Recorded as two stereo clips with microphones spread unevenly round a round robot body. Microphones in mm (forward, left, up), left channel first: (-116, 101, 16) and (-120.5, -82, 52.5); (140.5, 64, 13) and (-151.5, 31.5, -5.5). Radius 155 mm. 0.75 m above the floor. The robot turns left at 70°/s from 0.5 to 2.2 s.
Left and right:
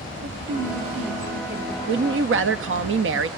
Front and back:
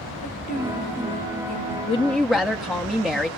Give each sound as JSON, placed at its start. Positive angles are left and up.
{"t": 0.2, "sound": "a woman speaking", "azimuth_deg": -60, "distance_m": 3.0}
{"t": 1.9, "sound": "a woman speaking", "azimuth_deg": -65, "distance_m": 1.2}